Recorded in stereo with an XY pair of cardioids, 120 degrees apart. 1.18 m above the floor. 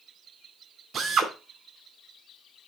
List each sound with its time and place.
0.9 s a drill: 50° right, 4.5 m